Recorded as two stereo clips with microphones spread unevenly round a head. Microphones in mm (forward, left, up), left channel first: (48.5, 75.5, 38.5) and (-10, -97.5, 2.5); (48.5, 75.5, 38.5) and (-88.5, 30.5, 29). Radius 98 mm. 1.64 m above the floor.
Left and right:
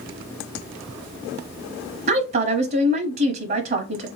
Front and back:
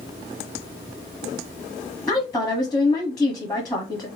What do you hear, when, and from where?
2.1 s a woman speaking: 70° right, 0.8 m